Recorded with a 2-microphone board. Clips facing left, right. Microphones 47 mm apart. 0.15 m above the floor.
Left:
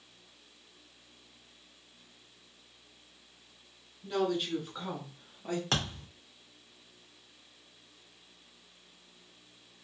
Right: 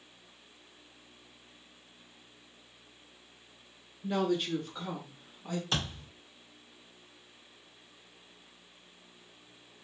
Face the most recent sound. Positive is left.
turn(degrees=60)  # may be behind; listen again after turning